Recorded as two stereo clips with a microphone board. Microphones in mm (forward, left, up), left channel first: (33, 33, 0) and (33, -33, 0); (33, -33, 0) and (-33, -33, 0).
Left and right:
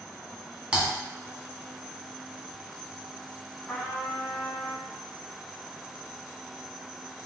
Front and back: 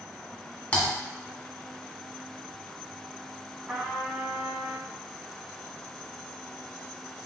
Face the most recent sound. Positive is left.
turn(degrees=150)